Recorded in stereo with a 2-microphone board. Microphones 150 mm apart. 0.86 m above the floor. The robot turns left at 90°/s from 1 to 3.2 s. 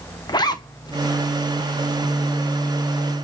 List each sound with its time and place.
0.3 s a zipper: 30° left (ahead or behind), 0.6 m